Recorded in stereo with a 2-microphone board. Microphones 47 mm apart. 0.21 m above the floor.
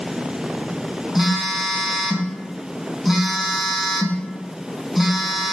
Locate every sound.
1.1 s a phone buzzing: 5° right (ahead or behind), 0.6 m